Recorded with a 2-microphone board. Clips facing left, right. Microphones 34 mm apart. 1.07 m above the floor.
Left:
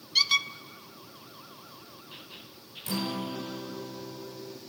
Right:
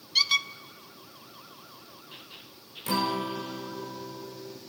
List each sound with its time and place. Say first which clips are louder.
0.1 s a squeak: even; centre (ahead or behind), 0.7 m
2.9 s a guitar: right 5 dB; 55° right (ahead or behind), 1.5 m